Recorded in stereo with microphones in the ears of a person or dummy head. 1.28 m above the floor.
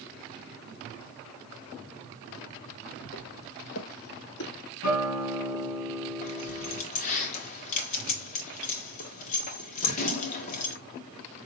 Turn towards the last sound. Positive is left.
turn(degrees=40)  # may be behind; listen again after turning